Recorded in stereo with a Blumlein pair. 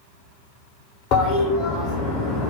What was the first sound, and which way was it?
A toilet flushing, 40° left.